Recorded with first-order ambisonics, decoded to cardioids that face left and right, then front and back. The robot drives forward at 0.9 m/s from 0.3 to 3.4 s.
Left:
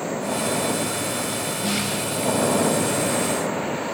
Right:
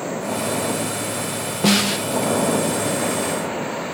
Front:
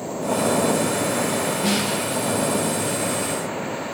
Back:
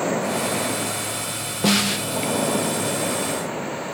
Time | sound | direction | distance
1.6 | a snare drum | 120° right | 0.7 m